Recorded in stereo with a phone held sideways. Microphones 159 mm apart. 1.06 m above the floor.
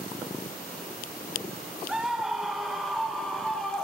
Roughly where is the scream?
Centre.